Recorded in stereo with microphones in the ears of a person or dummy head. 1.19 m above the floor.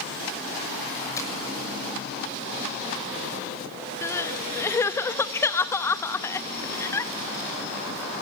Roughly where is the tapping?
Centre.